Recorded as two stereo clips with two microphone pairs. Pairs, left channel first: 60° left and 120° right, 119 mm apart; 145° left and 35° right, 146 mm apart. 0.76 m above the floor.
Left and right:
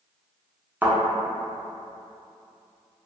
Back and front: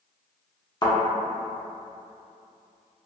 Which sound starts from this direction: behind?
A thud, at 0.8 s.